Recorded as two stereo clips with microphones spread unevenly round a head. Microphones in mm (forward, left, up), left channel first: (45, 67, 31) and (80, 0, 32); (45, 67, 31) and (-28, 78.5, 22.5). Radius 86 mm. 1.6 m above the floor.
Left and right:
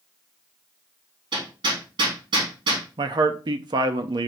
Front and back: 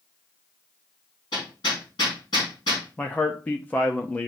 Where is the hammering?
70° right, 2.5 m.